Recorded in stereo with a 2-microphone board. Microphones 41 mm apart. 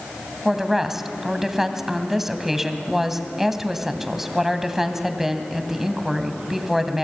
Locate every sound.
0.5 s a woman speaking: 10° right (ahead or behind), 2 m